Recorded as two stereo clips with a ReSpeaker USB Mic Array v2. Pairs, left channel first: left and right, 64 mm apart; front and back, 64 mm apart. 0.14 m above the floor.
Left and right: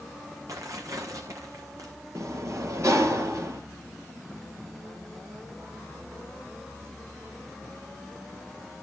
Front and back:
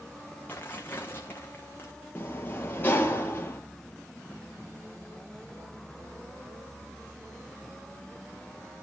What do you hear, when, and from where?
0.5 s tearing paper: 60° right, 3 m
2.1 s a sliding door: 55° right, 3 m